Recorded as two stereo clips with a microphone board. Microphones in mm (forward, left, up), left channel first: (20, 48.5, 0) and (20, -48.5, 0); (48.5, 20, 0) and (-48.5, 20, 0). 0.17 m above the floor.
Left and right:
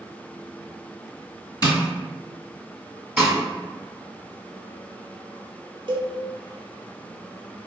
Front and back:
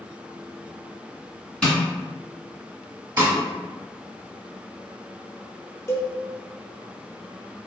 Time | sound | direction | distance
1.6 | tapping | 75° left | 2.0 m
3.2 | a snare drum | 160° right | 0.8 m
5.9 | a cowbell | 60° right | 0.6 m